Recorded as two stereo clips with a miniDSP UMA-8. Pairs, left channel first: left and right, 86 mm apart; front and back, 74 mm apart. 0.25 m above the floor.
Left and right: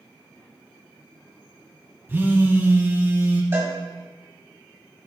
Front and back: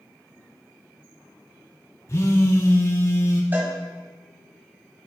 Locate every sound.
2.1 s a phone buzzing: 35° right, 1.0 m
3.5 s a cowbell: 135° right, 1.3 m